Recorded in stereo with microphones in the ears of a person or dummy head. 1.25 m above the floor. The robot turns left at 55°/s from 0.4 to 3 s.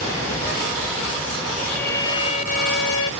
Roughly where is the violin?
Behind.